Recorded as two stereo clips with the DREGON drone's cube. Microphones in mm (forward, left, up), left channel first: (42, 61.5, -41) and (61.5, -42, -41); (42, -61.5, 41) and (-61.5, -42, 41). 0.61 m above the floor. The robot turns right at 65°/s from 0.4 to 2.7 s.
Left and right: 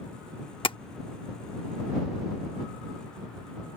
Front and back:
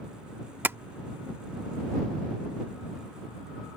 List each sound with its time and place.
0.6 s tapping: 105° left; by 0.8 s 110° left